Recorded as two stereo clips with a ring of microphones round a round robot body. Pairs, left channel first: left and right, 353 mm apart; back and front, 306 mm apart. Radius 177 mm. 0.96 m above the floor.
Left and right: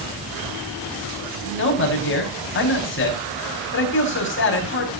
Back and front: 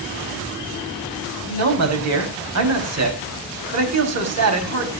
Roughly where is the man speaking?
Ahead left.